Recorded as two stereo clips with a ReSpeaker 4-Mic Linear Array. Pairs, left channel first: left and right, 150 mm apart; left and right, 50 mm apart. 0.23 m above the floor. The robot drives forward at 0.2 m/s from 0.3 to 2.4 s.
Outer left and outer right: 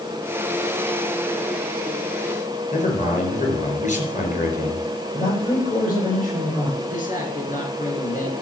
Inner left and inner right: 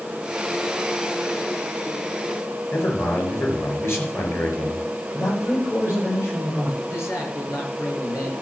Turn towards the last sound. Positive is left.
turn(degrees=60)  # may be behind; listen again after turning